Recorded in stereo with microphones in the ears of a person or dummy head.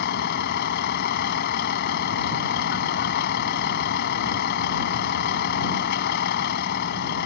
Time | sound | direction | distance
0.0 | a vehicle | 55° left (ahead or behind) | ?